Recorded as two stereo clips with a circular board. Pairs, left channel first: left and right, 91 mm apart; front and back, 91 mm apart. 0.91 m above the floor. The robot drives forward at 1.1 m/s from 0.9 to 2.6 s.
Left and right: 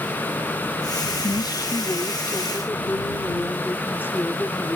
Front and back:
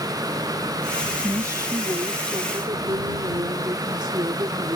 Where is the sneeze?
I don't hear a sneeze.